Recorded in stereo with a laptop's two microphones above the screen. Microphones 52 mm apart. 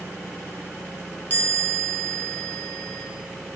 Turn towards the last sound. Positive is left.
turn(degrees=35)  # may be behind; listen again after turning